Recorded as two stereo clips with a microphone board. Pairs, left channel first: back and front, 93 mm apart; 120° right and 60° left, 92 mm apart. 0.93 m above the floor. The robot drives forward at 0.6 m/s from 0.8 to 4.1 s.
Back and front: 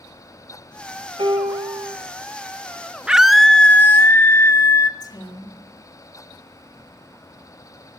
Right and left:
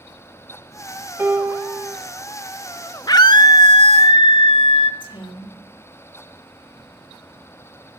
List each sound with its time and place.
1.2 s a piano: 5° right, 1.6 m
3.1 s a scream: 80° right, 0.9 m; by 4.9 s 120° right, 1.0 m
5.0 s a woman speaking: 135° right, 2 m